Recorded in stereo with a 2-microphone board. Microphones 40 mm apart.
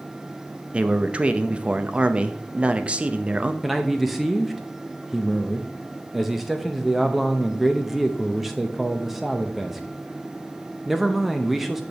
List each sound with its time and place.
0.7 s a man speaking: 30° right (ahead or behind), 0.6 m
3.6 s a man speaking: 5° right (ahead or behind), 0.6 m